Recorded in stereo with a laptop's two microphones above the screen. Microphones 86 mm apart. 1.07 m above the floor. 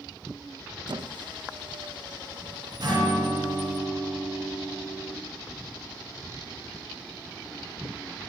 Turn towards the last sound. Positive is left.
turn(degrees=-55)  # may be behind; listen again after turning